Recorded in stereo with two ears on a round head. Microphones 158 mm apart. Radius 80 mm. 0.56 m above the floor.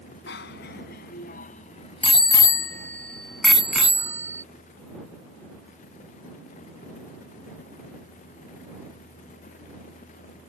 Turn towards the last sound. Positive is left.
turn(degrees=-15)  # may be behind; listen again after turning